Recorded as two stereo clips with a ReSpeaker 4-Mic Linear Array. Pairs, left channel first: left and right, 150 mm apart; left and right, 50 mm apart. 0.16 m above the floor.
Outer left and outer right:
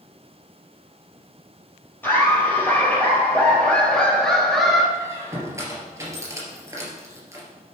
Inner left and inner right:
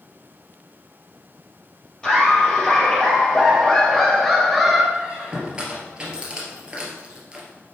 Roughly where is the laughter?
Centre.